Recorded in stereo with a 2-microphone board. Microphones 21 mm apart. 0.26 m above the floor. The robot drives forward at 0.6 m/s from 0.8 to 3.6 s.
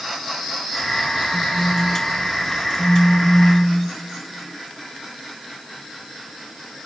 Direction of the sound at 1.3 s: 25° left (ahead or behind).